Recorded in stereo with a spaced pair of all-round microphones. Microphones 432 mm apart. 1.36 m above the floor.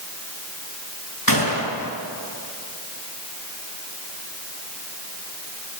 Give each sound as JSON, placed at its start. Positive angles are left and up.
{"t": 1.3, "sound": "a gunshot", "side_deg": 45, "distance_m": 6.0}